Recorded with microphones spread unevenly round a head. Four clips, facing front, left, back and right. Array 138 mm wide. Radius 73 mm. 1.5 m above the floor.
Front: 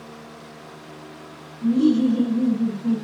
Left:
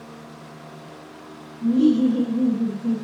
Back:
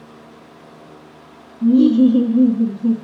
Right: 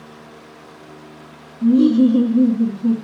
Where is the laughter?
155° right, 2.5 m.